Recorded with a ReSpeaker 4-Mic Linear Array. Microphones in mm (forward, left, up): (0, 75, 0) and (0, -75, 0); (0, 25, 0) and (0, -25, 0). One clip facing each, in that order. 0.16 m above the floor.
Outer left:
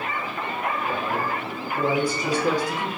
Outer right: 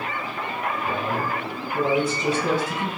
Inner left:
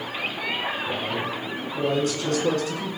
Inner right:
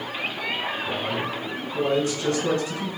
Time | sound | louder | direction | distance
0.8 | a man speaking | even, even | 25° right (ahead or behind) | 1.4 m